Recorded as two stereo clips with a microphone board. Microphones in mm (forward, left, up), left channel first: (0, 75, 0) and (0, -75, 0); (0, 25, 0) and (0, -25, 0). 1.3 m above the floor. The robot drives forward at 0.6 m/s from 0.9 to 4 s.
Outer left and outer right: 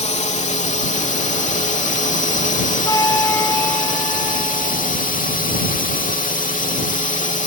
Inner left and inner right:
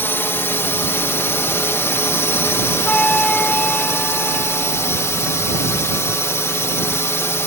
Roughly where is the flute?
Left.